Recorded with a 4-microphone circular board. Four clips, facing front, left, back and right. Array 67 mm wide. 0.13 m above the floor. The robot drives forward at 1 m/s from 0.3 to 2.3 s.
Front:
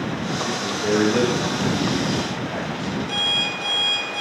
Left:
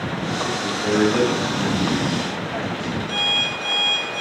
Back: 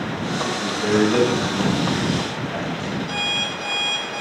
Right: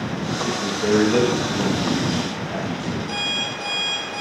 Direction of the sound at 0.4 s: 110° right.